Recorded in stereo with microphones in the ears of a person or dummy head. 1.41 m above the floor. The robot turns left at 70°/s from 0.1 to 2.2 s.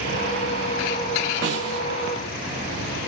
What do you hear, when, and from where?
1.4 s a snare drum: 25° right (ahead or behind), 0.8 m; by 1.8 s 20° right (ahead or behind), 0.8 m